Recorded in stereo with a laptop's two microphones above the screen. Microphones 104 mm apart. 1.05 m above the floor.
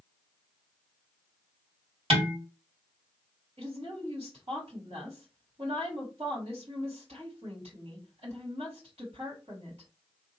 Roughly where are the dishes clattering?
Right.